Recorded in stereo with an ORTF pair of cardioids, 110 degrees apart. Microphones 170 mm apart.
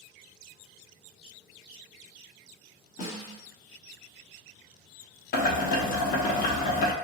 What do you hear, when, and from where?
3.0 s a snare drum: 50° left, 1.0 m
5.3 s boiling: 60° left, 0.6 m